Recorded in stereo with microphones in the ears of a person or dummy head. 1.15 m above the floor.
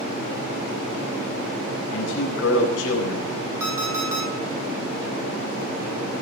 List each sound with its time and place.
1.9 s a man speaking: 75° left (ahead or behind), 9 m
3.6 s an alarm clock: 15° right (ahead or behind), 8 m